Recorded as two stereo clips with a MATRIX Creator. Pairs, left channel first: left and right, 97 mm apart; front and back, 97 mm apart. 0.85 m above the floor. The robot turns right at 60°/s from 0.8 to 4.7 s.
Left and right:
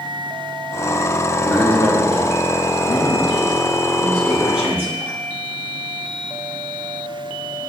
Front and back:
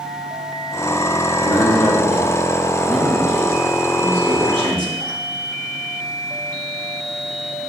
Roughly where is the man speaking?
Ahead.